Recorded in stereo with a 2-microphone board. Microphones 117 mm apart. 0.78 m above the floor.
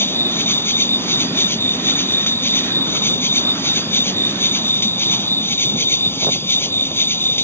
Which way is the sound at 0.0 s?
20° left (ahead or behind).